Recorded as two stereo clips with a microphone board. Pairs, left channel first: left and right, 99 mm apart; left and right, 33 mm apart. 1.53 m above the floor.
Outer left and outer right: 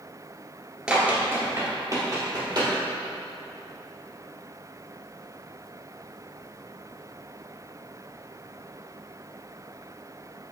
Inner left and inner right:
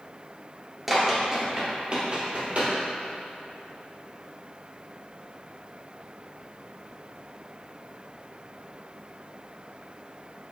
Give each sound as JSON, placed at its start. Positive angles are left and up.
{"t": 0.9, "sound": "running footsteps", "side_deg": -10, "distance_m": 1.6}